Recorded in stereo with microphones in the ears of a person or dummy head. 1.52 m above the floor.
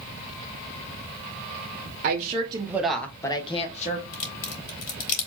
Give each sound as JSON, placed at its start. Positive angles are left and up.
{"t": 2.0, "sound": "a woman speaking", "side_deg": -45, "distance_m": 1.1}
{"t": 4.1, "sound": "a crack", "side_deg": 45, "distance_m": 2.5}